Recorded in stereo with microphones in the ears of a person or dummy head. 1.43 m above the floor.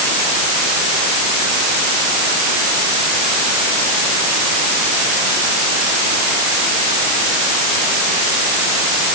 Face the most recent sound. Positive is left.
No sound to turn to.